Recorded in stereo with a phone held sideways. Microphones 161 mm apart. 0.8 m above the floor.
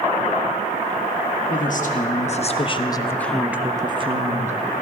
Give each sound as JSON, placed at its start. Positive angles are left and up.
{"t": 1.5, "sound": "a woman speaking", "side_deg": 60, "distance_m": 1.3}